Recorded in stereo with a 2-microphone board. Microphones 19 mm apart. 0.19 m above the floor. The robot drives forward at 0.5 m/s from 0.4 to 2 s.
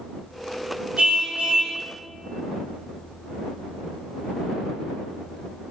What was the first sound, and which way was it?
A car horn, 85° right.